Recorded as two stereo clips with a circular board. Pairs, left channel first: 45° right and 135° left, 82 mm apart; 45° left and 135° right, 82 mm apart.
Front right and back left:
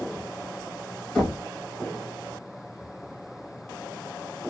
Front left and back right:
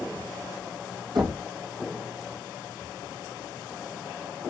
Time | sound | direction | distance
1.1 | knocking | 135° right | 2 m